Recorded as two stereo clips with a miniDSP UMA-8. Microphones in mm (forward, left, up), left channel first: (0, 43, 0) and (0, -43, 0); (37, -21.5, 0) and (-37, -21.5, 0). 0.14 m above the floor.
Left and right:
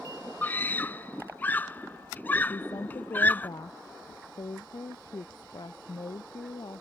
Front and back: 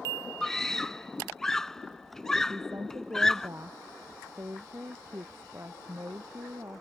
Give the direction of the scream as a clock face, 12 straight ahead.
10 o'clock.